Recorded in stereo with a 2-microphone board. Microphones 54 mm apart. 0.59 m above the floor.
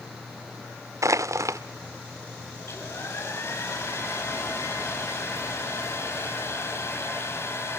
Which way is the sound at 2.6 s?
50° left (ahead or behind).